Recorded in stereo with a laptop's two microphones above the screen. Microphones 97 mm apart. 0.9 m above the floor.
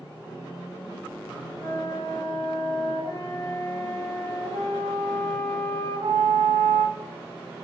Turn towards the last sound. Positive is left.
turn(degrees=-85)